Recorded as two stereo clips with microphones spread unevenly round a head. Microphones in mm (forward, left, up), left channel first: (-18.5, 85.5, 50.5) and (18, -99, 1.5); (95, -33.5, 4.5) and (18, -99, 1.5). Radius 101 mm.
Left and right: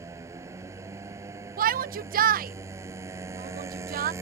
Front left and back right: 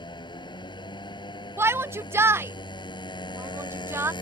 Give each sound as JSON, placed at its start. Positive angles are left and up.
{"t": 0.0, "sound": "a motorcycle", "azimuth_deg": 0}
{"t": 1.6, "sound": "a shout", "azimuth_deg": -80}